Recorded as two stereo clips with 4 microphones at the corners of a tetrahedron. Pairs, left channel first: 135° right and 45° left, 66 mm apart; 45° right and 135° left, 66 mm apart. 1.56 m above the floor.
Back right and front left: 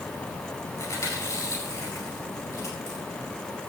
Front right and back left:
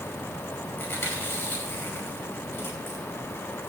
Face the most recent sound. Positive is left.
turn(degrees=-100)